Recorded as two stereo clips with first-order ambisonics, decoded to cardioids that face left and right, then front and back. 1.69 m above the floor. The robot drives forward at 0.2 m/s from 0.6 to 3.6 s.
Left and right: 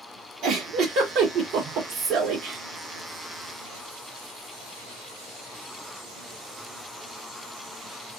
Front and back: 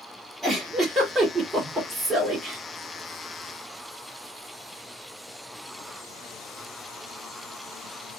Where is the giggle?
100° right, 1.4 m; by 2.6 s 120° right, 1.5 m.